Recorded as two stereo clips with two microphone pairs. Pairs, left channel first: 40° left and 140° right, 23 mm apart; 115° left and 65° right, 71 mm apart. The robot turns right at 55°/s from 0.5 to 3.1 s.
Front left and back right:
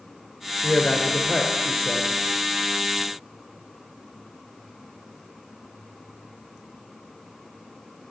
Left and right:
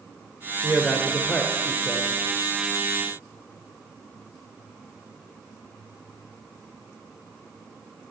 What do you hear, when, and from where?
0.6 s a man speaking: 10° left, 0.9 m; by 2.1 s 90° left, 0.9 m